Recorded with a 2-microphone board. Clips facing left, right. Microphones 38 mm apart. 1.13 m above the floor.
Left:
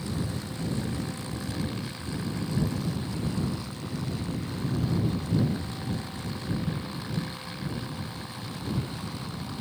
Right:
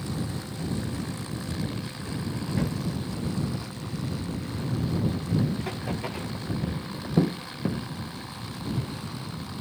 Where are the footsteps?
80° right.